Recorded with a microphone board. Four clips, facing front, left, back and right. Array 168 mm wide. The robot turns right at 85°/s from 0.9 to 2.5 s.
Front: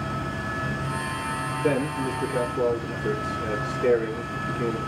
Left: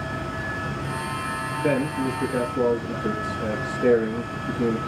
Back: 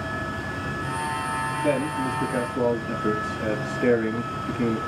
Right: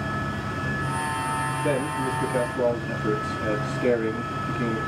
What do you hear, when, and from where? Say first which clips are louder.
1.6 s a man speaking: left 4 dB, even; 85° left, 4.5 m; by 4.8 s 160° left, 4.5 m